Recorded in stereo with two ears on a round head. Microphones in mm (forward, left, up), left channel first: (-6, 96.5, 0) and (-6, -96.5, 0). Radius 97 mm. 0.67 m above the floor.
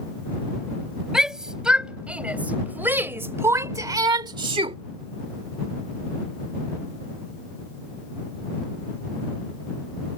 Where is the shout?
Centre (ahead or behind); by 4.8 s 25° right (ahead or behind).